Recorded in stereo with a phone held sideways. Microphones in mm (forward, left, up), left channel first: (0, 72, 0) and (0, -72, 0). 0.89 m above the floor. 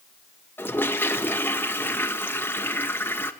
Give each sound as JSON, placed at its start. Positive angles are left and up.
{"t": 0.6, "sound": "a toilet flushing", "side_deg": 15, "distance_m": 1.1}